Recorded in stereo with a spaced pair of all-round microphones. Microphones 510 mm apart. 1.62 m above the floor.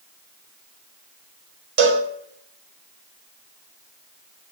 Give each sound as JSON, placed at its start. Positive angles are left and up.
{"t": 1.8, "sound": "a cowbell", "side_deg": -70, "distance_m": 0.6}